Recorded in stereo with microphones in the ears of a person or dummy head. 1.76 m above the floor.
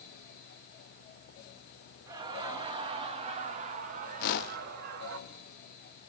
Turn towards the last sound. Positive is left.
turn(degrees=55)  # may be behind; listen again after turning